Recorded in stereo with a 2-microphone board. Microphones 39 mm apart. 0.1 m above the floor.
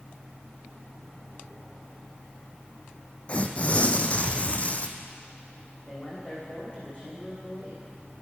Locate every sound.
3.3 s tearing paper: 30° left (ahead or behind), 1.0 m
5.9 s a man speaking: 30° left (ahead or behind), 6.5 m